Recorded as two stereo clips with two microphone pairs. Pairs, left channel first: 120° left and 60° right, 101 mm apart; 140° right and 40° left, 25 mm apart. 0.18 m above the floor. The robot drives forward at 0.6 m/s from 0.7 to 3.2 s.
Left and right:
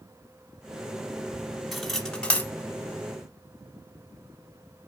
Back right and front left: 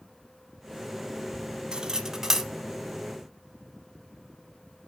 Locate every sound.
1.7 s cutlery clinking: 30° left, 0.9 m; by 2.5 s 100° left, 0.8 m